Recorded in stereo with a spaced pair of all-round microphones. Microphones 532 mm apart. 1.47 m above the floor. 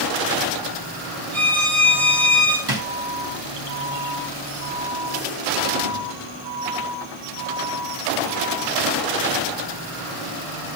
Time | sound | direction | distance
1.3 | a violin | 70° right (ahead or behind) | 1.6 m
2.7 | a drawer | 45° right (ahead or behind) | 1.4 m